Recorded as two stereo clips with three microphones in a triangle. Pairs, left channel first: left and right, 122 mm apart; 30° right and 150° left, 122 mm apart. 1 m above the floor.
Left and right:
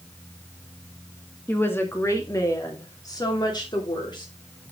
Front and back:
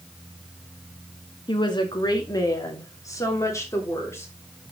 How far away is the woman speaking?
About 2 m.